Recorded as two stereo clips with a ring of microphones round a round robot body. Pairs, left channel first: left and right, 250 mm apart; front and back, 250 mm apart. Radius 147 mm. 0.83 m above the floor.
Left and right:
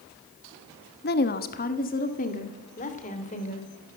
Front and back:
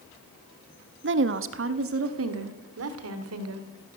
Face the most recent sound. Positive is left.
turn(degrees=155)